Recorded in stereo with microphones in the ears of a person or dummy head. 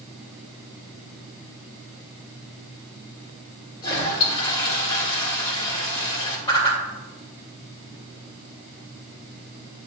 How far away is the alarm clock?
No alarm clock in this recording.